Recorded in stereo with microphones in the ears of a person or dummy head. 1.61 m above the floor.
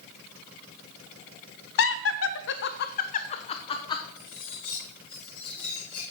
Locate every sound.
1.8 s laughter: 65° left (ahead or behind), 0.7 m; by 4.0 s 20° left (ahead or behind), 1.2 m
4.2 s cutlery clinking: centre (ahead or behind), 4.5 m